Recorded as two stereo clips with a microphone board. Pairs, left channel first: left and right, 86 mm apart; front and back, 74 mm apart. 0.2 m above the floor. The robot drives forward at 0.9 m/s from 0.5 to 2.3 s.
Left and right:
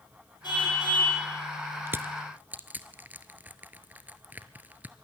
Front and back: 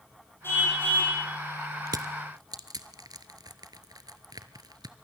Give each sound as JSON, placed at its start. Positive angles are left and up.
{"t": 0.4, "sound": "a car horn", "azimuth_deg": 60, "distance_m": 6.5}
{"t": 1.9, "sound": "crushing", "azimuth_deg": -150, "distance_m": 1.0}